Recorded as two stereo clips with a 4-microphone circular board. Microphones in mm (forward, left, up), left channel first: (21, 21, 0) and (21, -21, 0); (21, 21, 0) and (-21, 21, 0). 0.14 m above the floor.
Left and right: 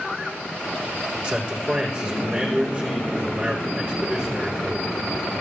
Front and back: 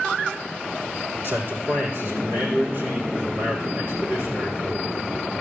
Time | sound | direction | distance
1.2 | a man speaking | 155° right | 5.5 m